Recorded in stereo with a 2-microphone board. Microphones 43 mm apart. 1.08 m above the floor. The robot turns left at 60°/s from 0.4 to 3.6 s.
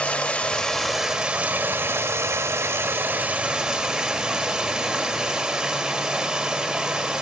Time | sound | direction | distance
0.0 | running water | 25° left | 1.5 m